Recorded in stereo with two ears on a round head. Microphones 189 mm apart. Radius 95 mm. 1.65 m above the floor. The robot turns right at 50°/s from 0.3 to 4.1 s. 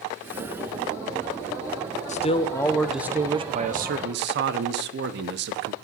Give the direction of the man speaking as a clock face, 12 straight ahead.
7 o'clock.